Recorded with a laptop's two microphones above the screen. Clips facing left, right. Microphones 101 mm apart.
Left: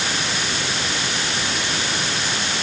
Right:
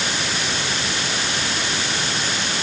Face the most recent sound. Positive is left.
No sound to turn to.